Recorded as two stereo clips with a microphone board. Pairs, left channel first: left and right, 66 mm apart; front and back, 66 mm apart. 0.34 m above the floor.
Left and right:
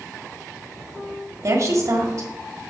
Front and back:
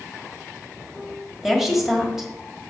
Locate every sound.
1.4 s a woman speaking: 95° right, 1.8 m